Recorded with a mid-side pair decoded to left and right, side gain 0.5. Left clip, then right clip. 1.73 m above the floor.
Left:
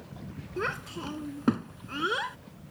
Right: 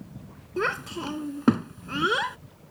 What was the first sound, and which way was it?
A child speaking, 30° right.